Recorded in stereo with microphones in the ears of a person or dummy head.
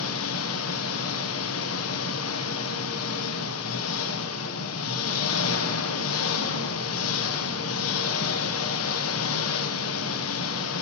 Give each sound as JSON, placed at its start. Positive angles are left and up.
{"t": 0.0, "sound": "an engine running", "side_deg": 85, "distance_m": 1.3}